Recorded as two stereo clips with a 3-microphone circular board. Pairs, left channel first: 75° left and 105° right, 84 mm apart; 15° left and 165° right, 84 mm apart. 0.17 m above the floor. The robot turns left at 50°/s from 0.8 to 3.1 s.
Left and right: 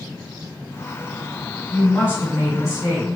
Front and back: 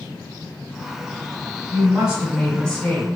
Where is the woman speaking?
135° left, 1.3 m; by 3.0 s 65° left, 1.3 m.